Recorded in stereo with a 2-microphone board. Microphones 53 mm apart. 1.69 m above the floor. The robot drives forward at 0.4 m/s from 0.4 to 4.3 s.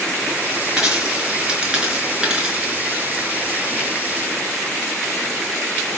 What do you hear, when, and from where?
0.8 s a dropped coin: 10° right (ahead or behind), 4.5 m; by 2.6 s 15° right (ahead or behind), 4 m